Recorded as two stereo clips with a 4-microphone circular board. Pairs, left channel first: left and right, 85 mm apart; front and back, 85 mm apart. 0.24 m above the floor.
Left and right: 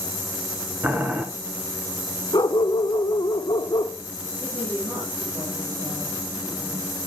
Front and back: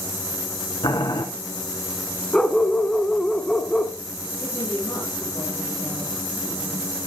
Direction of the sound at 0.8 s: 20° right.